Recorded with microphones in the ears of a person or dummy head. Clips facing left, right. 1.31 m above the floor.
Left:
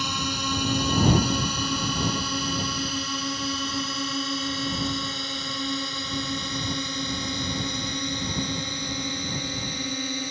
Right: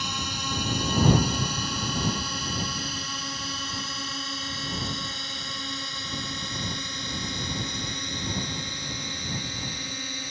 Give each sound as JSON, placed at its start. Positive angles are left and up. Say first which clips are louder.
{"t": 0.0, "sound": "a drone", "louder": "left 5 dB", "side_deg": 75}